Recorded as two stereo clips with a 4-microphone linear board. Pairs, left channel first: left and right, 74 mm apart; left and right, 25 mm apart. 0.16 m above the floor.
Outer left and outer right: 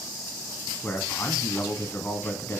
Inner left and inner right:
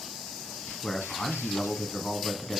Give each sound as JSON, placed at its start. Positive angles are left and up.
{"t": 0.8, "sound": "a man speaking", "side_deg": 25, "distance_m": 1.5}